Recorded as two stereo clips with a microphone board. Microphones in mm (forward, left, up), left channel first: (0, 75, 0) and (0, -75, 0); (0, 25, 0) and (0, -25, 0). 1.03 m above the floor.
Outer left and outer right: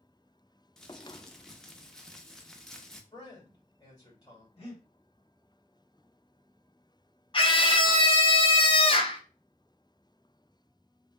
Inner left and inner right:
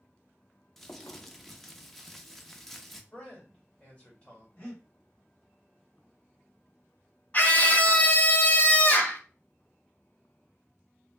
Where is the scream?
35° left (ahead or behind), 0.9 m.